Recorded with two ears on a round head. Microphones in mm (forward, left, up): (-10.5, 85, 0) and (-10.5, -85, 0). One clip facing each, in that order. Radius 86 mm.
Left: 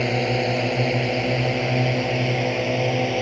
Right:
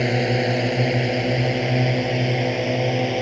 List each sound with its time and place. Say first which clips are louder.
0.0 s a drone: right 1 dB; 10° right (ahead or behind); by 3.2 s 5° right (ahead or behind)